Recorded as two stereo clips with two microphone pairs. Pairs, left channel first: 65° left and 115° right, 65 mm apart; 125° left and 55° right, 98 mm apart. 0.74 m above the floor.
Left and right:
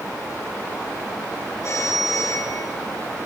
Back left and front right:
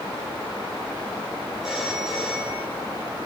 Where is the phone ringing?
30° left, 8.5 m.